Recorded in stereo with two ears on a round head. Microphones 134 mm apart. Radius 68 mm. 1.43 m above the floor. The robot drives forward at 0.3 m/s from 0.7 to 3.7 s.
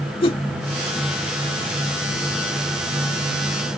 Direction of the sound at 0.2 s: 35° left (ahead or behind).